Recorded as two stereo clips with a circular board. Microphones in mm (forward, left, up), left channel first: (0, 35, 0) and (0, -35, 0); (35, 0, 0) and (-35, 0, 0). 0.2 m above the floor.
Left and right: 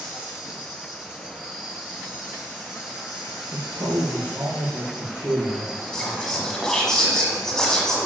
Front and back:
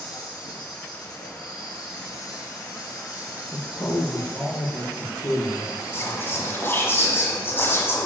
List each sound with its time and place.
0.0 s an insect: 10° right, 5.5 m
3.5 s a man speaking: 40° right, 3 m
5.9 s whispering: 15° left, 1.5 m